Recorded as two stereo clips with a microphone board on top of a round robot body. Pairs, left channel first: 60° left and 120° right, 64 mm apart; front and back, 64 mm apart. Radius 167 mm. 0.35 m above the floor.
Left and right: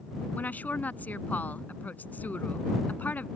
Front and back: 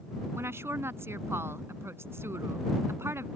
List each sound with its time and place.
0.3 s a woman speaking: 125° left